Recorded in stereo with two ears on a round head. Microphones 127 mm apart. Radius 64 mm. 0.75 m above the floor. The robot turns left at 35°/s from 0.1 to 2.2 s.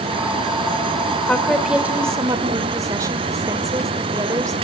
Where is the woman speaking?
10° left, 2.5 m; by 4.5 s 25° right, 2.5 m.